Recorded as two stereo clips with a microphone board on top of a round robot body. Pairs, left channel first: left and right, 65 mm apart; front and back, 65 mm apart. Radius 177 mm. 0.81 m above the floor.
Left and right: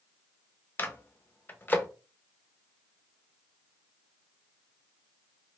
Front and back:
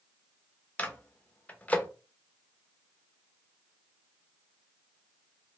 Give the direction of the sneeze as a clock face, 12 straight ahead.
I don't hear a sneeze.